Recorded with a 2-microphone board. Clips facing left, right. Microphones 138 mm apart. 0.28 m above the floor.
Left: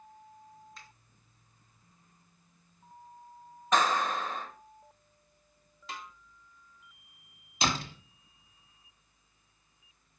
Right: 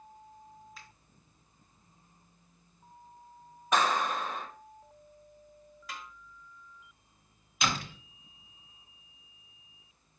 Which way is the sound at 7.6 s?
30° left (ahead or behind).